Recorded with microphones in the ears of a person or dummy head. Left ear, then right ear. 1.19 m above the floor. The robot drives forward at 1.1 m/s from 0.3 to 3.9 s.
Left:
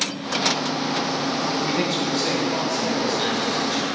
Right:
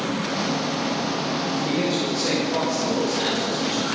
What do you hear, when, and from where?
1.6 s a man speaking: 40° left (ahead or behind), 1.1 m; by 3.9 s 15° left (ahead or behind), 3 m